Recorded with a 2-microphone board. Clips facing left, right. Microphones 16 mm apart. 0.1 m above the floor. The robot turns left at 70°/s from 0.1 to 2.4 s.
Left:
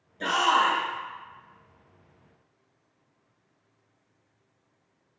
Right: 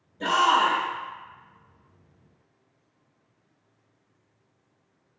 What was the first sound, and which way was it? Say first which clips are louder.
A shout: right 2 dB; 25° left (ahead or behind).